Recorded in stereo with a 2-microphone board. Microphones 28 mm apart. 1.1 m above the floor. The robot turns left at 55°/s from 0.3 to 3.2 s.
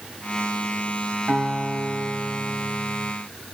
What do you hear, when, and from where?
1.3 s a guitar: 65° right, 3.5 m; by 3.1 s 165° right, 3.5 m